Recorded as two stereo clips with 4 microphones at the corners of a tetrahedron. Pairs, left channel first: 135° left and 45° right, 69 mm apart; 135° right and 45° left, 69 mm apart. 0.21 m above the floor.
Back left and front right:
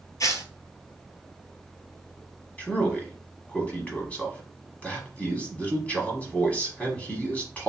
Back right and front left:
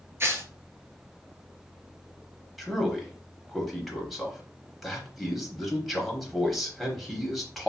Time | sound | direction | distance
0.2 | tearing paper | 95° left | 0.6 m
2.6 | a man speaking | 135° left | 1.0 m